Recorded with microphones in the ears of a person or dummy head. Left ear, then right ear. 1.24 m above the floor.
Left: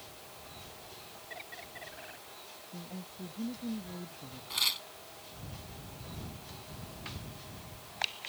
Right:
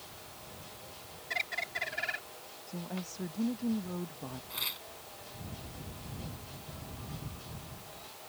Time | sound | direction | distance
1.3 | a bird | 65° right (ahead or behind) | ?
2.7 | a woman speaking | 65° right (ahead or behind) | ?
4.5 | tearing paper | 20° left (ahead or behind) | ?